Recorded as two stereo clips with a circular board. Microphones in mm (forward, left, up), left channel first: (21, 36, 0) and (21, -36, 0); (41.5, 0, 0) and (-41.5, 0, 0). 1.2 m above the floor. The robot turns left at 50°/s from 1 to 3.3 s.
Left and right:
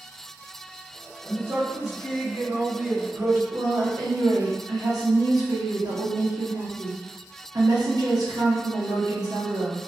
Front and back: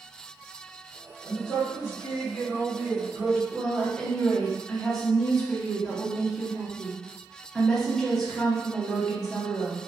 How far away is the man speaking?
About 1.1 m.